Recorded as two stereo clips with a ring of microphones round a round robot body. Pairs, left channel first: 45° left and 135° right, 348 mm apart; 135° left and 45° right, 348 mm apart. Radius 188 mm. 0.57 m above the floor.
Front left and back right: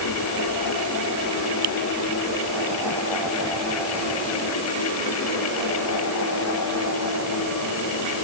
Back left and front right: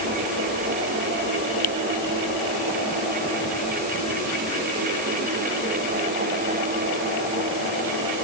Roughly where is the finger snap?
Behind.